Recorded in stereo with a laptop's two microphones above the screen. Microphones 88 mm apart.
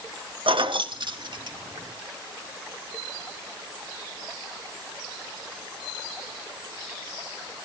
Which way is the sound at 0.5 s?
75° right (ahead or behind).